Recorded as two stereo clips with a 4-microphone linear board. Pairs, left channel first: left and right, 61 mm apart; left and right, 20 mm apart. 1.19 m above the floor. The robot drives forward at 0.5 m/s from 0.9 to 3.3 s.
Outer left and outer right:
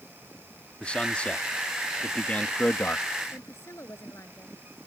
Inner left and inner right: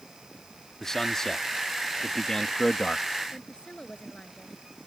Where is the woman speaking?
50° left (ahead or behind).